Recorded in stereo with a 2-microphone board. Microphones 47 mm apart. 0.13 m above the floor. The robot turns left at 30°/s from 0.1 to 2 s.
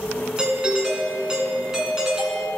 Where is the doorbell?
20° right (ahead or behind), 1.5 m; by 2.5 s 10° right (ahead or behind), 1.5 m.